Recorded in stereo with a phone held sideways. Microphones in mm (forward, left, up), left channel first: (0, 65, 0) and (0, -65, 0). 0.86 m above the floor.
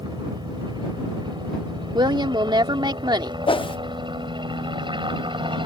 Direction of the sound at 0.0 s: 35° right (ahead or behind).